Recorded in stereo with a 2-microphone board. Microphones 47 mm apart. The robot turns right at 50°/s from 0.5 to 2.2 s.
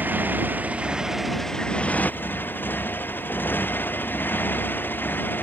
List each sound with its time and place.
0.0 s a motorcycle: 40° right; by 5.4 s 45° left